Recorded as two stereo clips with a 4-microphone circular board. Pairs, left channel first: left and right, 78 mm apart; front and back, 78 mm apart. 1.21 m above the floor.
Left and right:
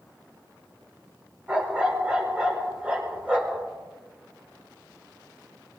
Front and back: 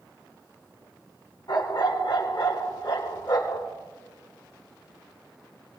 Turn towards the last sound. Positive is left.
turn(degrees=-20)